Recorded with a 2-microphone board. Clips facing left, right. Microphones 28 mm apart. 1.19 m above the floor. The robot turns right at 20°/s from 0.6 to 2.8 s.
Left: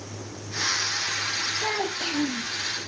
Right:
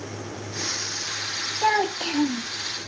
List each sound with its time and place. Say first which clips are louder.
1.6 s a child speaking: right 5 dB; 65° right (ahead or behind), 1.0 m